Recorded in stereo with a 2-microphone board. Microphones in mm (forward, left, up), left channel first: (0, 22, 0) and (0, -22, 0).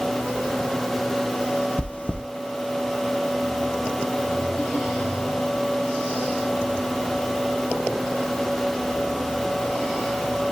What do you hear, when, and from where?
1.8 s chewing: 30° left (ahead or behind), 0.8 m